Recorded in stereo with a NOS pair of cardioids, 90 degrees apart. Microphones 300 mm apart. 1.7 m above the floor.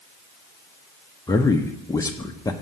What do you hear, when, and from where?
1.3 s a man speaking: 10° left, 0.6 m